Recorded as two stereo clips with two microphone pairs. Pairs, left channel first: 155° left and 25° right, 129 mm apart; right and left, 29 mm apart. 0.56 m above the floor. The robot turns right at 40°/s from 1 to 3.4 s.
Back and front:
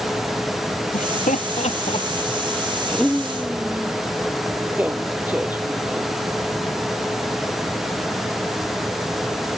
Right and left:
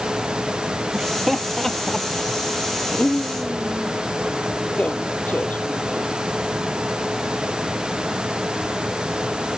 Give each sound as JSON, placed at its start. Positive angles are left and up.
{"t": 0.9, "sound": "laughter", "azimuth_deg": 160}